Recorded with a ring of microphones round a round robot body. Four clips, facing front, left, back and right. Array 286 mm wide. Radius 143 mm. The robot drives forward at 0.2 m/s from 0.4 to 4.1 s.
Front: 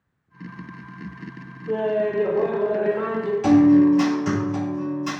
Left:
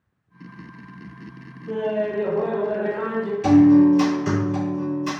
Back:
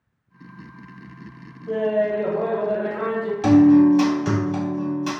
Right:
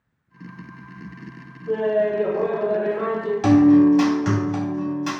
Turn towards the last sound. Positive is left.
turn(degrees=-125)